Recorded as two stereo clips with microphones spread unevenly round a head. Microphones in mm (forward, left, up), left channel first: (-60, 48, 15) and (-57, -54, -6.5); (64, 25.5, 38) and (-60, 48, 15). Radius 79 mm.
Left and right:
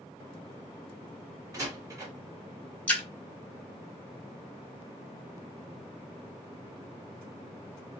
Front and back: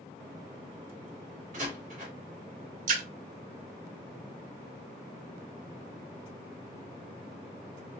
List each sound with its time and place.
1.5 s a door slam: 145° right, 2.5 m
2.9 s a splash: 160° left, 1.0 m